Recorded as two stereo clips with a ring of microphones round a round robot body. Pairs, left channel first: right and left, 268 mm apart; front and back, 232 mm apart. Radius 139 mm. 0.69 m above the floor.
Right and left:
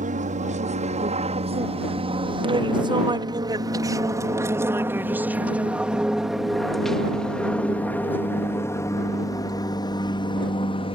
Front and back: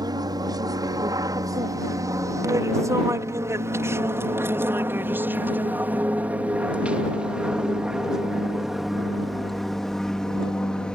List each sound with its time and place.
0.0 s an aircraft: 120° left; by 11.0 s 80° right